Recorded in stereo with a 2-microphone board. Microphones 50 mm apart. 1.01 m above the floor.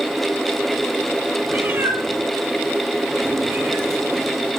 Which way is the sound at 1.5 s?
45° right (ahead or behind).